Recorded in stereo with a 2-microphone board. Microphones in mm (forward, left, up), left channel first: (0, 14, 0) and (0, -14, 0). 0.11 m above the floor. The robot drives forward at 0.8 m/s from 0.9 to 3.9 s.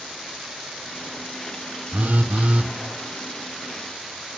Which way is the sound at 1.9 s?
75° right (ahead or behind).